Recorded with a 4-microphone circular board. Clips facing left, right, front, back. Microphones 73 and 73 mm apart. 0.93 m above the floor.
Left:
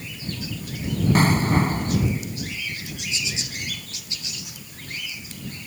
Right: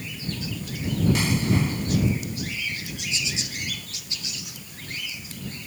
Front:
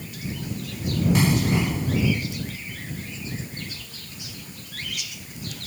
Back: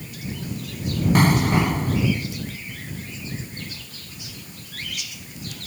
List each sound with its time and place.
1.1 s an explosion: 135° left